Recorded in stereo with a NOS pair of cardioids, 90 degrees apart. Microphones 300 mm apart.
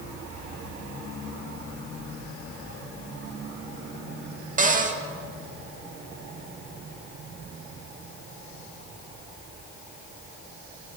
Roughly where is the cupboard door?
Ahead right.